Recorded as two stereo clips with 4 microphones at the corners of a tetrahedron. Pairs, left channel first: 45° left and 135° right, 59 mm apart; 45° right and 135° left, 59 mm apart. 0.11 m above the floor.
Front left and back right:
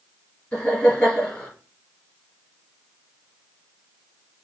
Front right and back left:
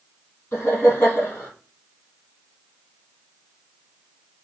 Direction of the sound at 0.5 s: 20° right.